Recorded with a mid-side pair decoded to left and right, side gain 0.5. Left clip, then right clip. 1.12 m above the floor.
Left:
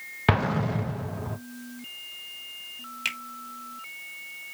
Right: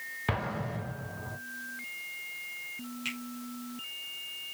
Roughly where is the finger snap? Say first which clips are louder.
Left 7 dB; ahead left.